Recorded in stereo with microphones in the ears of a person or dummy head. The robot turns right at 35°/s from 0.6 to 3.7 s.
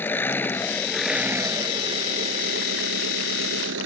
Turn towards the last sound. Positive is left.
turn(degrees=-85)